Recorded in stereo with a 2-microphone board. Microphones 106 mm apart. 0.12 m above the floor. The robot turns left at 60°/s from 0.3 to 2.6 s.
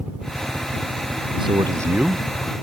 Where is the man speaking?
125° right; by 2.5 s 165° left.